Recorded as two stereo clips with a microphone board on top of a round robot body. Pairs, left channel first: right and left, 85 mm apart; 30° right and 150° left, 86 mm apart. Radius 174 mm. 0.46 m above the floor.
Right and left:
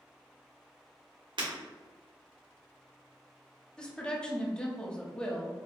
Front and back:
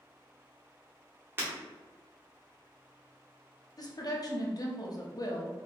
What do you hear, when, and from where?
1.4 s breaking glass: 85° left, 1.7 m
3.8 s a woman speaking: 15° right, 1.1 m